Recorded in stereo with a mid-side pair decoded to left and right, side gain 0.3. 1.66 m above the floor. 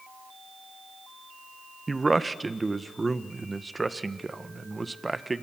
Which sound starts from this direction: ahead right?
A man speaking, at 1.9 s.